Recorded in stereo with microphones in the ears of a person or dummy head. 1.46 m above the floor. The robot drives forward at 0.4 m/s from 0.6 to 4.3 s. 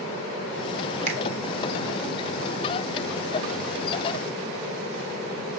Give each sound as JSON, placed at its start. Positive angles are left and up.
{"t": 1.1, "sound": "a finger snap", "side_deg": -50, "distance_m": 2.5}